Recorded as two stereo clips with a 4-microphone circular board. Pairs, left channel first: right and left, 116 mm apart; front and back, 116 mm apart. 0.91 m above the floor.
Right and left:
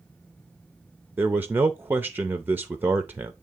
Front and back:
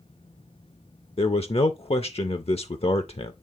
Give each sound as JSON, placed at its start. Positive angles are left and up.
{"t": 1.2, "sound": "a man speaking", "azimuth_deg": 20, "distance_m": 0.6}